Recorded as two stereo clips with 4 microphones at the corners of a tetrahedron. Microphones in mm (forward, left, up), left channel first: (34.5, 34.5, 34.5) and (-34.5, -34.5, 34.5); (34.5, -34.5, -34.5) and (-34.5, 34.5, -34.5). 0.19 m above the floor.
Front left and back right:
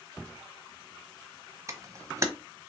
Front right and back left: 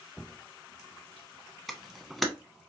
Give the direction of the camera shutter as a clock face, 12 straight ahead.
4 o'clock.